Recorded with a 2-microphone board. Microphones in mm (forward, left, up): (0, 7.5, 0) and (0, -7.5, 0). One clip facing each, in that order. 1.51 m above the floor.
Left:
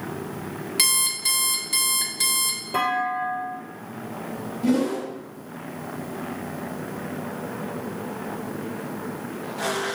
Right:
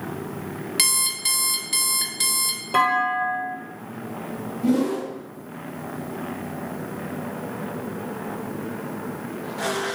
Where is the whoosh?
10° left (ahead or behind), 1.4 m.